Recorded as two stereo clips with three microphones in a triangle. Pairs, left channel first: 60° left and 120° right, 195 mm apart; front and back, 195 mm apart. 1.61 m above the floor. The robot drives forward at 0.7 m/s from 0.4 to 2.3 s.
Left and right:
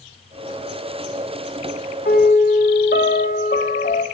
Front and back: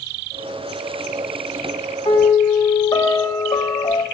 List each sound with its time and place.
2.0 s a piano: 65° left, 3 m; by 4.0 s 70° left, 3 m